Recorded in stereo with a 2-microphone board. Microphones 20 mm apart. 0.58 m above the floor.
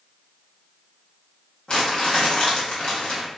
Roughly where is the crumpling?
Left.